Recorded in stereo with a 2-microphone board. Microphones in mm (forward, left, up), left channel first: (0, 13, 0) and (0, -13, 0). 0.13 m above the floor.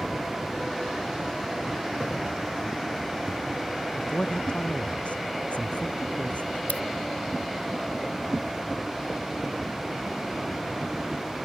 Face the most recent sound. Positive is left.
turn(degrees=70)  # may be behind; listen again after turning